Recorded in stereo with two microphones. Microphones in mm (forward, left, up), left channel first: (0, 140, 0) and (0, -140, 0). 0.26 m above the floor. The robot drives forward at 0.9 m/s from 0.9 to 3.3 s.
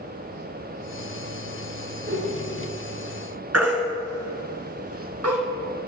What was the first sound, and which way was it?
A whoosh, 35° right (ahead or behind).